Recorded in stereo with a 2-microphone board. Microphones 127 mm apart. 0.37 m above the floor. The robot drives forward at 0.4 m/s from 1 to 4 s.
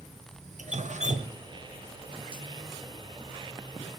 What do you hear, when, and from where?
0.6 s dripping: 65° right (ahead or behind), 0.6 m; by 2.4 s 40° right (ahead or behind), 0.9 m